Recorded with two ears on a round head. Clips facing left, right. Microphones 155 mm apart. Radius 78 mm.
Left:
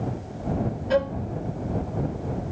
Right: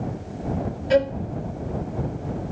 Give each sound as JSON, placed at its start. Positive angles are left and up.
{"t": 0.9, "sound": "a violin", "side_deg": -30}